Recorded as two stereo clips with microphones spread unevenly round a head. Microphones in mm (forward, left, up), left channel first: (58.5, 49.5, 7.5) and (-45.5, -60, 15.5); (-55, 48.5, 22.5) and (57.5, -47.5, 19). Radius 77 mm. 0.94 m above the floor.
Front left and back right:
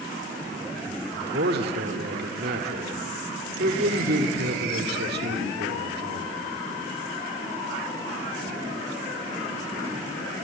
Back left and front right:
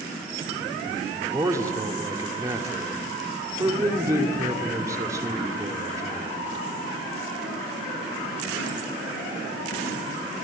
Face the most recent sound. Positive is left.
turn(degrees=-110)